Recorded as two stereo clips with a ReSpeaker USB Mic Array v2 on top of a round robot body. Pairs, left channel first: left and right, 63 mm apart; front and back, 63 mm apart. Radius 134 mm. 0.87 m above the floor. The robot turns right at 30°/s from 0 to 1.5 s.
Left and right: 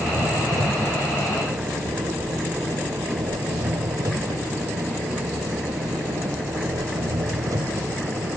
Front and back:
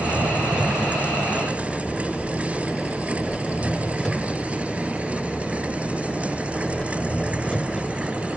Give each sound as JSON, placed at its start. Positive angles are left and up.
{"t": 0.0, "sound": "an engine running", "azimuth_deg": -125}